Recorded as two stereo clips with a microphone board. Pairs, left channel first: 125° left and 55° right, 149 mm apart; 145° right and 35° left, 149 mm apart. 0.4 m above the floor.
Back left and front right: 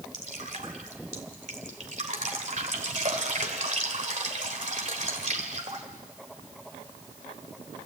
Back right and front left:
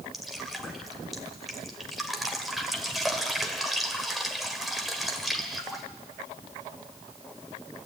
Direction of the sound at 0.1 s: 55° right.